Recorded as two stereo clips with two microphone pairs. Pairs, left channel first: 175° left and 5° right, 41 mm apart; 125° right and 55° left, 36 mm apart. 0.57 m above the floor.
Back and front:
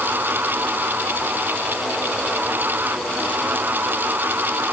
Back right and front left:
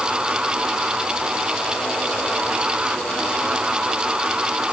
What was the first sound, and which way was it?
Only background noise.